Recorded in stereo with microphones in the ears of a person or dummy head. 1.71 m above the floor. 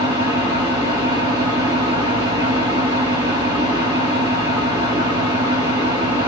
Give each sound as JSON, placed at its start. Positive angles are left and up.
{"t": 0.0, "sound": "an engine running", "side_deg": -20, "distance_m": 0.8}